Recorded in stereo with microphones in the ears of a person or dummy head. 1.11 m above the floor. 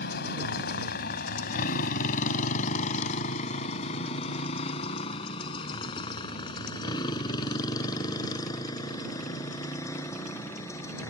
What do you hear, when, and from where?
0.0 s a motorcycle: 65° left (ahead or behind); by 11.1 s 15° left (ahead or behind)